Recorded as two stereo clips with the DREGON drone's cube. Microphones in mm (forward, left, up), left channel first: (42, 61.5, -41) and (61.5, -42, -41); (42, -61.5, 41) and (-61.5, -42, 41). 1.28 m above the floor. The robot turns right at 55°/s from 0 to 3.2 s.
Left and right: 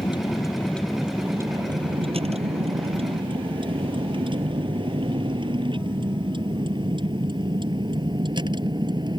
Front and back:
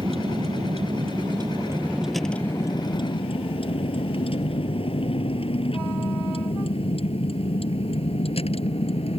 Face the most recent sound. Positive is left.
turn(degrees=-35)